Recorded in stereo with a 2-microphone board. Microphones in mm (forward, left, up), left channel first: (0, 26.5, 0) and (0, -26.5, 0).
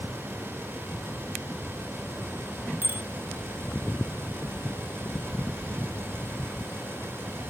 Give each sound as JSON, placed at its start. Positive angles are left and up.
{"t": 2.8, "sound": "a bicycle bell", "side_deg": -40}